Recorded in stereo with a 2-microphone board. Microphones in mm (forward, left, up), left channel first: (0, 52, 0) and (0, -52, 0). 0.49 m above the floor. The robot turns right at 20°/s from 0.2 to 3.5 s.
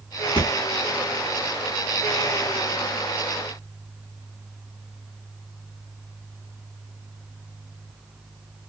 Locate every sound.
0.4 s a thud: 70° left (ahead or behind), 1.4 m; by 0.5 s 75° left (ahead or behind), 1.4 m